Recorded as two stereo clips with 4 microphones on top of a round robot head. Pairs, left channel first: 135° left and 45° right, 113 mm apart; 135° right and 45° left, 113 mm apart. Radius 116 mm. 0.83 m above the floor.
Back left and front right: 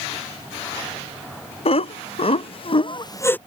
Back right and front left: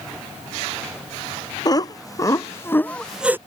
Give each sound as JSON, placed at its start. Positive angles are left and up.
{"t": 1.6, "sound": "laughter", "azimuth_deg": 170}